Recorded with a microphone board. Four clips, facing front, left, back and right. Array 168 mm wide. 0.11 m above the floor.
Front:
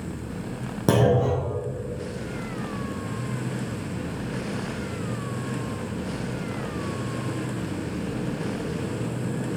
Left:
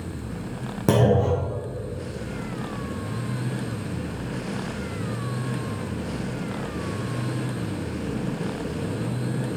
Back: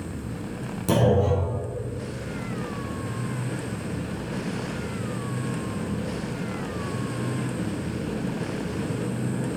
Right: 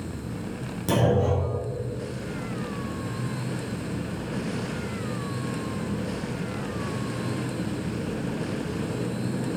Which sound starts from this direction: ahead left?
A clunk, at 0.9 s.